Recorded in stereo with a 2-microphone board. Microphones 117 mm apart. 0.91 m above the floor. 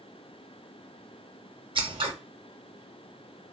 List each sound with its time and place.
1.8 s scissors: 45° right (ahead or behind), 0.7 m